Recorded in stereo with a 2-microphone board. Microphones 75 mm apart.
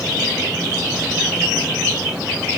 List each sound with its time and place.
Only background noise.